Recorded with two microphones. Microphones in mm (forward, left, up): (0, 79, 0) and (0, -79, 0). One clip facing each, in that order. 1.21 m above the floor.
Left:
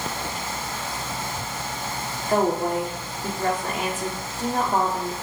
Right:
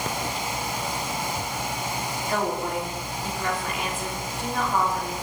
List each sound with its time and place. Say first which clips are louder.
2.3 s a woman speaking: left 6 dB; 40° left (ahead or behind), 3.5 m